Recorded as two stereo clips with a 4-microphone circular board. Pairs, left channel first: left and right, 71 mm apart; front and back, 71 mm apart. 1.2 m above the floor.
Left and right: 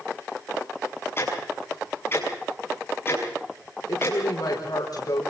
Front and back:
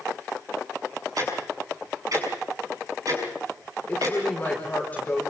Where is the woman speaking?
70° left, 5 m.